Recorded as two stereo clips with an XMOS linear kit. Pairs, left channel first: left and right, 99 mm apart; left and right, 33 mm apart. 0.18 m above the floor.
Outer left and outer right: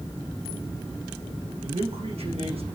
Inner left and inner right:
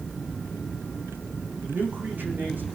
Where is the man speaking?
80° right, 8.5 m.